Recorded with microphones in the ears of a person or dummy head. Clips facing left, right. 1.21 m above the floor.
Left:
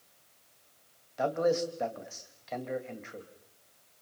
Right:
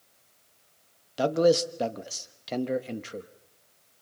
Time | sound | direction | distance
1.2 | a man speaking | 50° right (ahead or behind) | 1.2 m